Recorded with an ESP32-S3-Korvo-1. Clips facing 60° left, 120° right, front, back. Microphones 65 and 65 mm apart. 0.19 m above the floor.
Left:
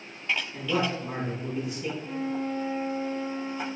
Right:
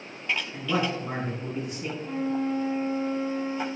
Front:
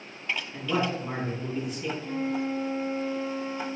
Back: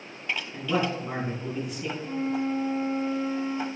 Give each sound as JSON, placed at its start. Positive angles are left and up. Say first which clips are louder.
{"t": 0.5, "sound": "a man speaking", "louder": "right 1 dB, back 1 dB", "azimuth_deg": -80, "distance_m": 1.4}
{"t": 2.0, "sound": "a flute", "louder": "right 5 dB, back 2 dB", "azimuth_deg": -110, "distance_m": 1.6}